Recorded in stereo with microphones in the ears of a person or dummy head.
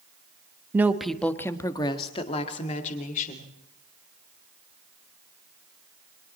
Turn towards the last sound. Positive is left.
turn(degrees=45)  # may be behind; listen again after turning